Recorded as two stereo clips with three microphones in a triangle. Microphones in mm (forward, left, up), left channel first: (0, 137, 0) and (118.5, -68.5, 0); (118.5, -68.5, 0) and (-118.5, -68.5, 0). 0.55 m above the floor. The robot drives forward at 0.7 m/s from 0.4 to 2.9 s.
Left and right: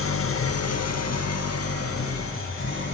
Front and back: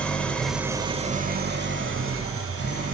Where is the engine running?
85° left, 0.7 m; by 3.0 s 155° left, 1.8 m.